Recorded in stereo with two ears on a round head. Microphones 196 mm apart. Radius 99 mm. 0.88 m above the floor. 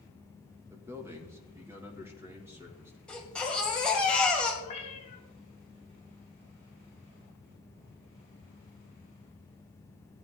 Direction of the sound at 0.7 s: 10° right (ahead or behind).